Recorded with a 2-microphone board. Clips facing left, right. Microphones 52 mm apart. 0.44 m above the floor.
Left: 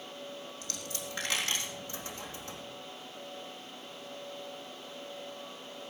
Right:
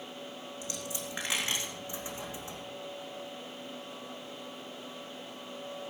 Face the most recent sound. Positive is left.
turn(degrees=-15)  # may be behind; listen again after turning